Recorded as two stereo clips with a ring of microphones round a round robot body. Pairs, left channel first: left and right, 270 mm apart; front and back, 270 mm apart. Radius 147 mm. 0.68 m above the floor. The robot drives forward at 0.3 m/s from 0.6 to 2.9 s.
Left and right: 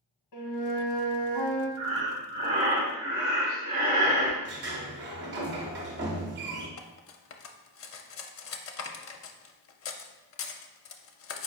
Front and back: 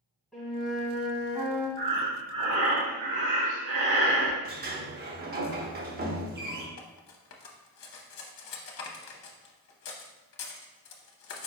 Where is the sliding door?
135° right, 0.7 m.